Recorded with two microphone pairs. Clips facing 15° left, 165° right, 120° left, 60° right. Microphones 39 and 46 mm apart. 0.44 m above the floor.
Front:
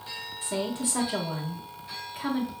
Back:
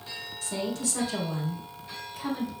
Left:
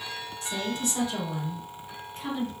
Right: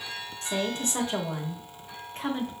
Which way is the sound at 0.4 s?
40° right.